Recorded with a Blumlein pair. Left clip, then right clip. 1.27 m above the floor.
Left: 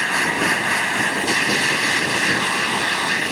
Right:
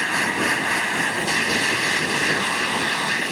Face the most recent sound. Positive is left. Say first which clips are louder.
# left 2 dB
turn(degrees=5)